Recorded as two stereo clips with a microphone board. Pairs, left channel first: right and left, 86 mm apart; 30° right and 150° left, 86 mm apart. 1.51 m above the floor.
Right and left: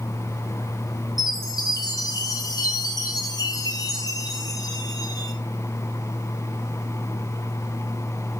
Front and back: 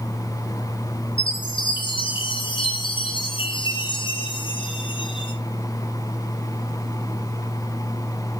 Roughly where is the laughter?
No laughter in this recording.